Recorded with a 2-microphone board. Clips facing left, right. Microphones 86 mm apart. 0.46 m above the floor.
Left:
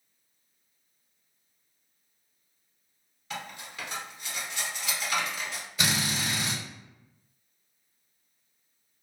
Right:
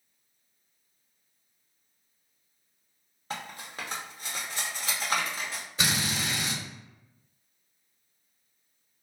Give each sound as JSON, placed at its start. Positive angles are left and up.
{"t": 3.3, "sound": "cutlery clinking", "side_deg": -40, "distance_m": 0.7}
{"t": 5.8, "sound": "a drill", "side_deg": -30, "distance_m": 1.7}